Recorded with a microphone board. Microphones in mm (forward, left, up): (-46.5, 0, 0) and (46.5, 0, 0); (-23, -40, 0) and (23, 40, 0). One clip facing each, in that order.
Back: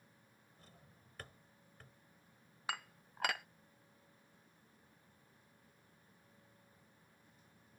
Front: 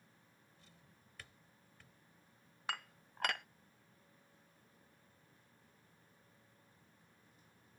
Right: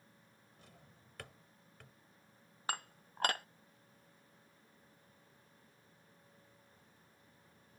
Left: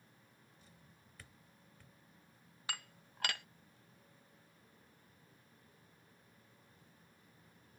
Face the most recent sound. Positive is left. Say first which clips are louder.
# even, right 6 dB
turn(degrees=-95)